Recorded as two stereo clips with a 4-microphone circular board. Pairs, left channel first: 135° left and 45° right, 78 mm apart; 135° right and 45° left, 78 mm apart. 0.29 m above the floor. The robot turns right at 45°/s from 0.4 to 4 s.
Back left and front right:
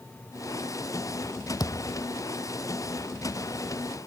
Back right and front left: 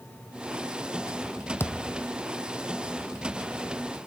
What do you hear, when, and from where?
1.6 s a thud: 165° left; by 2.0 s 175° right